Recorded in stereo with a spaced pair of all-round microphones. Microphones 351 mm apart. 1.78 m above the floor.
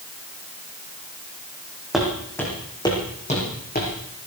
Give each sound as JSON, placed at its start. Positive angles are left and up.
{"t": 1.9, "sound": "footsteps", "side_deg": 0, "distance_m": 5.5}